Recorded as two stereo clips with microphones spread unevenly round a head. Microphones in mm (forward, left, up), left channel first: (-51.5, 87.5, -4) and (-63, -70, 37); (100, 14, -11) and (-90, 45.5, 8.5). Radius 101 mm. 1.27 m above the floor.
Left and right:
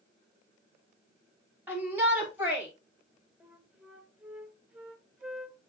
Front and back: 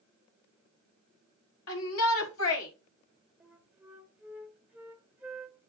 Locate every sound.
1.7 s a shout: 10° right, 3 m
3.4 s a flute: 130° right, 1.0 m